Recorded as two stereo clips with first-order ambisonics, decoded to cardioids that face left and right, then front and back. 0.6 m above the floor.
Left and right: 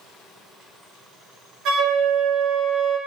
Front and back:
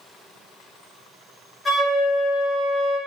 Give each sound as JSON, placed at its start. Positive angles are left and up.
{"t": 1.6, "sound": "a flute", "azimuth_deg": -70, "distance_m": 0.6}